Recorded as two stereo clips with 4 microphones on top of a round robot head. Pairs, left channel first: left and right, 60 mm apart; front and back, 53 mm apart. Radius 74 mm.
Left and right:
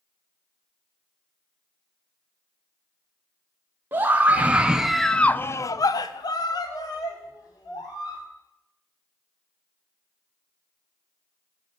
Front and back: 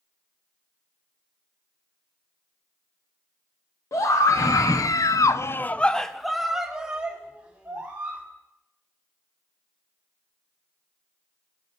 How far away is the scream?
About 1.9 m.